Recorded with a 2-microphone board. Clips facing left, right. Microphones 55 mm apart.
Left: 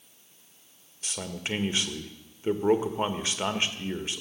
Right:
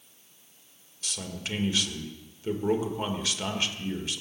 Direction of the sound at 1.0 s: 30° left (ahead or behind).